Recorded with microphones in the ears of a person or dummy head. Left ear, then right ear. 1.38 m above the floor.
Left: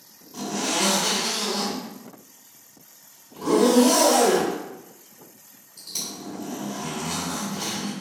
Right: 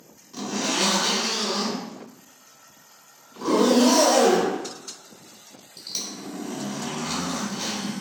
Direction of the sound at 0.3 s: 55° right (ahead or behind).